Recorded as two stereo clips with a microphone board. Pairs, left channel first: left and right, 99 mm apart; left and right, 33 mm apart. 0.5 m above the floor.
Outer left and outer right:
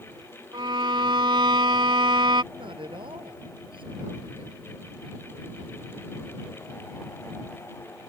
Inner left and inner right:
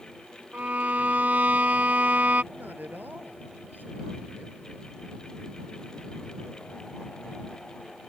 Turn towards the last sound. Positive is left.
turn(degrees=-60)  # may be behind; listen again after turning